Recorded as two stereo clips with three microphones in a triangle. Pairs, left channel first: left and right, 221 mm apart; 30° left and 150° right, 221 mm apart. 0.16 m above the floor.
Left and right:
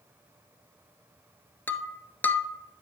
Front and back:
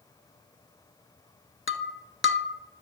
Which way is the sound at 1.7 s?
10° left.